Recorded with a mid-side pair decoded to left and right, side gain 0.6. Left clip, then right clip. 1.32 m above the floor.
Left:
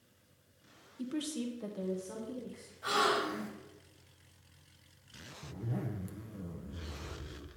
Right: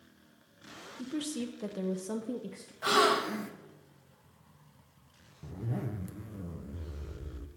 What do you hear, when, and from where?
1.0 s a woman speaking: 5° right, 0.8 m; by 2.7 s 75° right, 0.7 m
2.8 s a gasp: 55° right, 1.0 m
5.4 s a zipper: 15° right, 0.5 m